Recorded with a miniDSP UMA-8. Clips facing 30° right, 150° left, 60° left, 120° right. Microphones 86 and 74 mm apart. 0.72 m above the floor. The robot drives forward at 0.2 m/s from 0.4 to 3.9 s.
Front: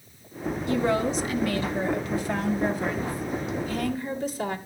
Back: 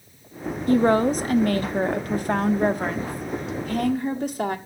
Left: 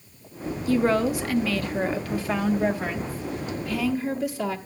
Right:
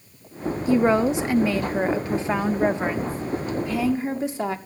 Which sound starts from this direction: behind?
A woman speaking, at 0.7 s.